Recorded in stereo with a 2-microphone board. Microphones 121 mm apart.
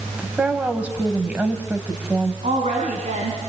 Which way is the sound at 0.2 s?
10° right (ahead or behind).